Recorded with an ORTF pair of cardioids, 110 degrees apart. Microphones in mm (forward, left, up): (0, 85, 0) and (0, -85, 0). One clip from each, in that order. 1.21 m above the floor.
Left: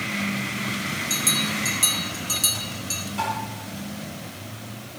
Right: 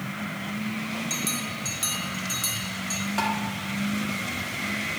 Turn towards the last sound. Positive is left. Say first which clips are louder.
# even
turn(degrees=-50)